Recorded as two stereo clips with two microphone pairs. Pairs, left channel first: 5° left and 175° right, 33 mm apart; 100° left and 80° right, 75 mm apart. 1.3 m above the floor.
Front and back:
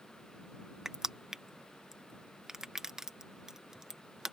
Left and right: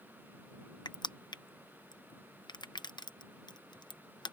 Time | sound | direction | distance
0.8 | crushing | 110° left | ?